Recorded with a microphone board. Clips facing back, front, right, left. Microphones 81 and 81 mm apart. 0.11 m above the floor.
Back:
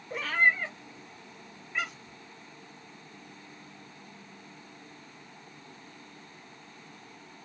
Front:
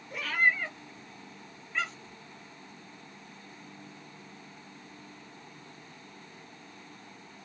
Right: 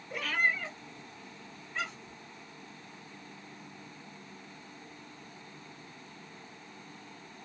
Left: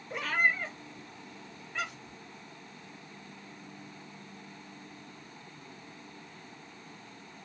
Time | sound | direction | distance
0.1 | a cat meowing | 145° left | 0.9 m